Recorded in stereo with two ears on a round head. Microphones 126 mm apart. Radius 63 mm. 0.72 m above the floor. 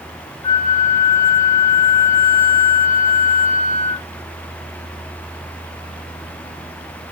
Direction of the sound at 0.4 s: 20° left (ahead or behind).